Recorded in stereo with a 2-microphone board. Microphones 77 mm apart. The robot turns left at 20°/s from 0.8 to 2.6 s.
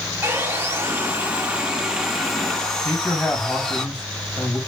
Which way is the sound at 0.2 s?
150° right.